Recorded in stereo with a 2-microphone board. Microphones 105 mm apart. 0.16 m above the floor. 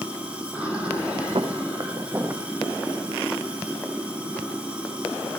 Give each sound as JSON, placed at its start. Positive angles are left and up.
{"t": 0.0, "sound": "running water", "side_deg": -10, "distance_m": 3.0}
{"t": 1.4, "sound": "footsteps", "side_deg": -60, "distance_m": 0.8}